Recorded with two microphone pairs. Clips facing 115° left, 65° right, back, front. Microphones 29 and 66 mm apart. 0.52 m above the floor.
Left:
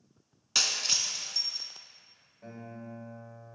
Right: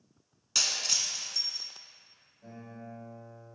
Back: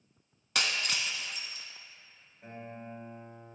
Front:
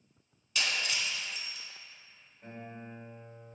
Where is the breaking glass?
175° right, 0.7 m.